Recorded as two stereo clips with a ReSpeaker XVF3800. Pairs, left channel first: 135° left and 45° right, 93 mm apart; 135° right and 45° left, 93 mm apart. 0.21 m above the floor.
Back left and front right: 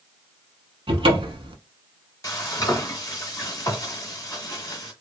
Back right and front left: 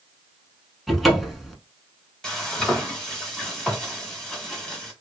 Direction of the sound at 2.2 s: 145° left.